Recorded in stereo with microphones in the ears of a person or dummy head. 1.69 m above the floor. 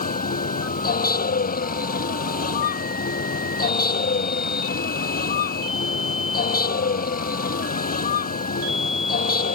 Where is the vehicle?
45° left (ahead or behind).